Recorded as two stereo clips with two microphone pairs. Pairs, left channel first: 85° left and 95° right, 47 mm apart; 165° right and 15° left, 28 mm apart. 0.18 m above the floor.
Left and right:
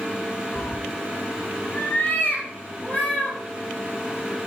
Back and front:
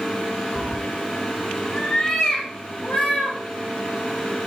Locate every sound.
0.6 s a cat meowing: 35° left, 0.7 m; by 3.4 s 140° left, 3 m